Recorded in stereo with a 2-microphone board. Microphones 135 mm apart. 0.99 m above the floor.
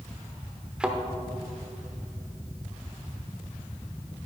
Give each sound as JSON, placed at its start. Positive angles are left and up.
{"t": 0.8, "sound": "a thud", "side_deg": -5, "distance_m": 0.8}